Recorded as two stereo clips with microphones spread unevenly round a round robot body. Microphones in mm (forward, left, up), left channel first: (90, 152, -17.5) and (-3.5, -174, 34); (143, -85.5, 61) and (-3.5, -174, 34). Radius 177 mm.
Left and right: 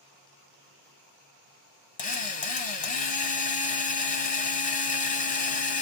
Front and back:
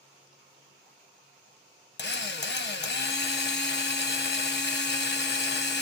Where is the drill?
10° left, 1.0 m.